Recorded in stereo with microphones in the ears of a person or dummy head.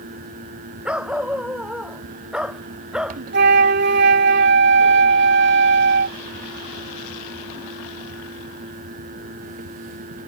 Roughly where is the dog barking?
Centre.